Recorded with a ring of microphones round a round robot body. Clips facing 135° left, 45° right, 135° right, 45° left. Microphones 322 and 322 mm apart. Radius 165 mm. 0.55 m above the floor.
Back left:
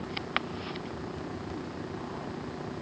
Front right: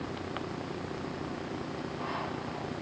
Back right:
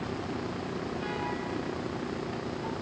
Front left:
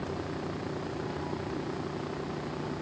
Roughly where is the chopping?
No chopping in this recording.